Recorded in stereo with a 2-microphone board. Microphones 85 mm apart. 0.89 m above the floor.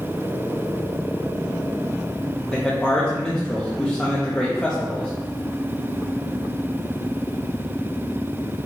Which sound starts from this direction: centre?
A man speaking, at 2.5 s.